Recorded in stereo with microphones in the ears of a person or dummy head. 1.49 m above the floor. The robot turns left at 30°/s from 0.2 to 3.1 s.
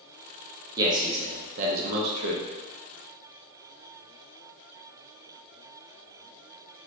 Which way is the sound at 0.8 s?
30° right.